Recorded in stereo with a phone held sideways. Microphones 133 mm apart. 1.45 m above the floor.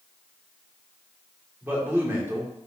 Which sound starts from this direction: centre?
A man speaking, at 1.6 s.